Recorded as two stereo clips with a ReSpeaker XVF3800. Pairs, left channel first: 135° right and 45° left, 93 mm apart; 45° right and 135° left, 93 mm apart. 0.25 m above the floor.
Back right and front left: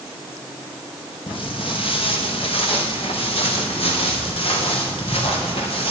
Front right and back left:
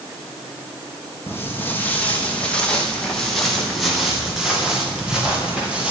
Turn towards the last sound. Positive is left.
turn(degrees=-145)